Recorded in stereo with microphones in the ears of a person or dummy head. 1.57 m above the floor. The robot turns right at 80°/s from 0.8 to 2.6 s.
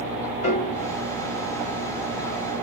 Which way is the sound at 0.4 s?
50° left (ahead or behind).